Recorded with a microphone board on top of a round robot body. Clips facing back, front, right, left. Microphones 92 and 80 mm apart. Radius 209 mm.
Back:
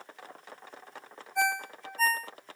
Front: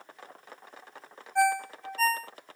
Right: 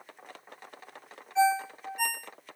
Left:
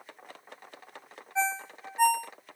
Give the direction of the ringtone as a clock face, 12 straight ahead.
11 o'clock.